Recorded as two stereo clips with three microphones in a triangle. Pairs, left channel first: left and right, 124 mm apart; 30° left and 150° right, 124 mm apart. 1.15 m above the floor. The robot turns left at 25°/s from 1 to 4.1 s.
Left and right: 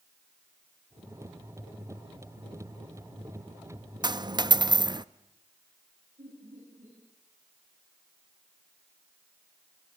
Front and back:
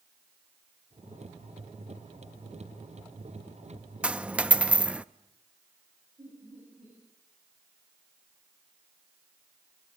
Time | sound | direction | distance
4.0 | a dropped coin | 75° right | 0.5 m
6.2 | laughter | 100° right | 9 m